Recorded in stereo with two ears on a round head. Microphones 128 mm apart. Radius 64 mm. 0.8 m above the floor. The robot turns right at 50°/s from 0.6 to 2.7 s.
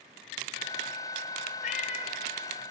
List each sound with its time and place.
1.6 s a cat meowing: 60° left (ahead or behind), 1.8 m; by 2.1 s 30° left (ahead or behind), 1.8 m